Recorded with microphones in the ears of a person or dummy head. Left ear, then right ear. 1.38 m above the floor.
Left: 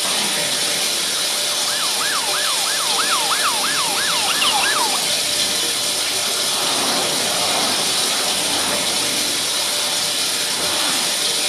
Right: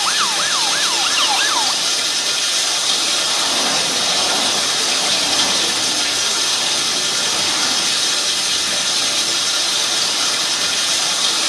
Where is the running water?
40° right (ahead or behind), 6 m.